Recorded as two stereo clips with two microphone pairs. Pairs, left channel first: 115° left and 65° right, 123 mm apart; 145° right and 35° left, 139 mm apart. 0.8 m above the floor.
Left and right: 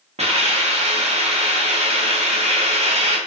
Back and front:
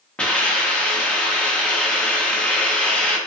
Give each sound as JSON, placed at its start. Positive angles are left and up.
{"t": 0.2, "sound": "a hiss", "azimuth_deg": -65, "distance_m": 0.8}